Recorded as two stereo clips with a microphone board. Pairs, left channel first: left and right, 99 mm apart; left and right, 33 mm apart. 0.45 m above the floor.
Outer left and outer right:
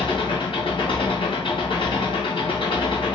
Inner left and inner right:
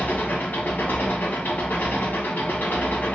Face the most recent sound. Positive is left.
turn(degrees=65)  # may be behind; listen again after turning